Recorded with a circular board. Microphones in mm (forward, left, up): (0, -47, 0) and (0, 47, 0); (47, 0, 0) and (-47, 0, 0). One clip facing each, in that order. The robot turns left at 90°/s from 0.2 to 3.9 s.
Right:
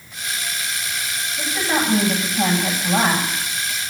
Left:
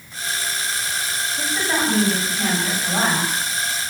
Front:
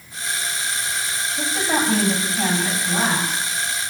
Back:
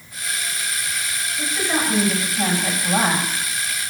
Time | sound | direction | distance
1.4 | a woman speaking | 15° left | 8 m